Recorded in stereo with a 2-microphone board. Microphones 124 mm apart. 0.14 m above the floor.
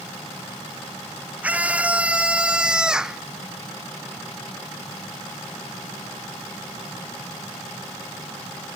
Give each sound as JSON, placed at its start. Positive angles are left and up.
{"t": 1.4, "sound": "a scream", "side_deg": -10}